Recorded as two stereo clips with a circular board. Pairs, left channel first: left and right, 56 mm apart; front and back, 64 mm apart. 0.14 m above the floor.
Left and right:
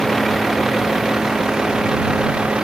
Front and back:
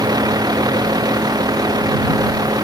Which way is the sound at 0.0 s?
Straight behind.